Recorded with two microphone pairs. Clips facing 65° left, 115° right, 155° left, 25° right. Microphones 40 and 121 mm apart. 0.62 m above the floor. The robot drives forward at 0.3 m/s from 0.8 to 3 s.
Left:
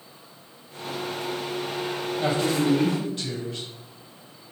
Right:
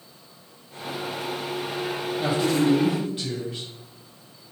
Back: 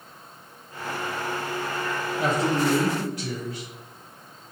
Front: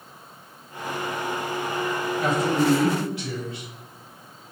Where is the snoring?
I don't hear snoring.